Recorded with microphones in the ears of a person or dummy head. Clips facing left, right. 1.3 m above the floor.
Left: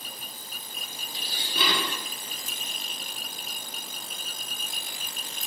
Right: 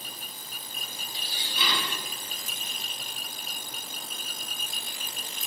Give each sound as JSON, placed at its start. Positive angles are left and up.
{"t": 1.1, "sound": "dishes clattering", "side_deg": 50, "distance_m": 1.4}